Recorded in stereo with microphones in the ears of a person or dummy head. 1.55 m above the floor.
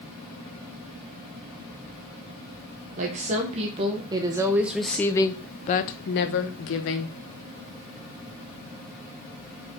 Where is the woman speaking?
40° right (ahead or behind), 1.3 m; by 7.1 s 70° left (ahead or behind), 1.2 m.